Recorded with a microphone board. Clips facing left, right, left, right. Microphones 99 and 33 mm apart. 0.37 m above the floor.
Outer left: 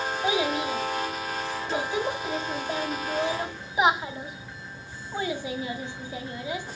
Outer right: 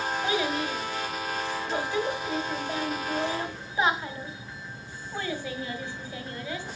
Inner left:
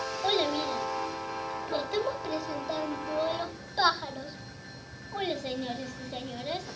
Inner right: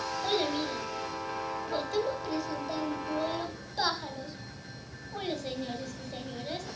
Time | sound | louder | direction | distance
0.2 | a child speaking | outer left 4 dB, inner left 3 dB | 15° left (ahead or behind) | 1.3 m